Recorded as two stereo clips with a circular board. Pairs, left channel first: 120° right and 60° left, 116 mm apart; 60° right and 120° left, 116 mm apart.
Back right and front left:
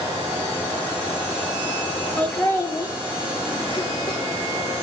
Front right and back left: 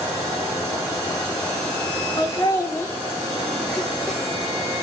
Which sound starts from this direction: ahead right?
Laughter, at 2.2 s.